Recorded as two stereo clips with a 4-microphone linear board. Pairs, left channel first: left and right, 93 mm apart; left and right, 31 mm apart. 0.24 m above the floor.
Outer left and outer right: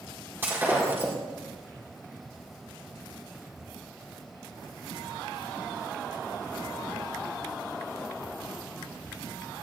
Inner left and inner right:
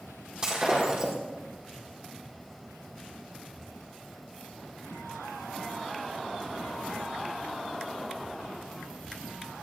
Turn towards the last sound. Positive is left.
turn(degrees=-25)  # may be behind; listen again after turning